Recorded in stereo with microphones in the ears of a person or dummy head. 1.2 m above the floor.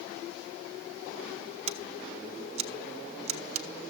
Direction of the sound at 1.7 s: 35° right (ahead or behind).